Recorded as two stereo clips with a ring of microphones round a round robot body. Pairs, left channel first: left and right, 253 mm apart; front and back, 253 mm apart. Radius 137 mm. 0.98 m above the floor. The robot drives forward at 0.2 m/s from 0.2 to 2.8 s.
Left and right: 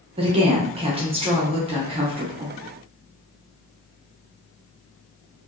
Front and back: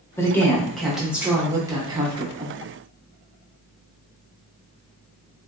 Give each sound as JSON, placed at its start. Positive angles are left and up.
{"t": 0.2, "sound": "a woman speaking", "azimuth_deg": -65, "distance_m": 0.8}